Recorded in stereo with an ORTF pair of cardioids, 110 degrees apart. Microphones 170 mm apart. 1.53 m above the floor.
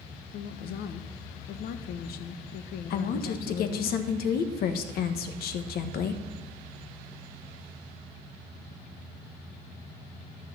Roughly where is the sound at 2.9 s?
Ahead left.